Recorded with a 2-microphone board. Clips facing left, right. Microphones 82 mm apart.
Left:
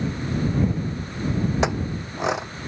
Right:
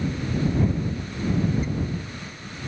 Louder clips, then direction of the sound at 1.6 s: Left 4 dB; 85° left.